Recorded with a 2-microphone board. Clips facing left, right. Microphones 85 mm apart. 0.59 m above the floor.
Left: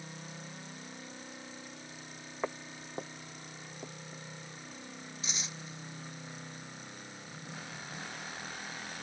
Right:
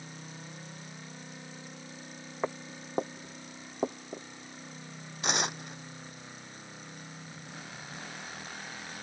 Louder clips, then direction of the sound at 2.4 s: Right 3 dB; 10° right (ahead or behind).